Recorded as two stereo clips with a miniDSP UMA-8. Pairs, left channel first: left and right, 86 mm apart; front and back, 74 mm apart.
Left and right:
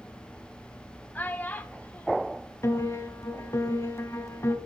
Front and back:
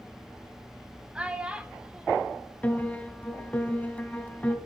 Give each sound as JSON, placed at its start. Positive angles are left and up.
{"t": 1.1, "sound": "a child speaking", "azimuth_deg": 125, "distance_m": 0.6}
{"t": 2.6, "sound": "a piano", "azimuth_deg": 60, "distance_m": 1.0}